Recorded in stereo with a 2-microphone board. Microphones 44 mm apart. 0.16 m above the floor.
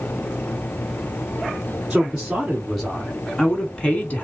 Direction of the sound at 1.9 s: 15° right (ahead or behind).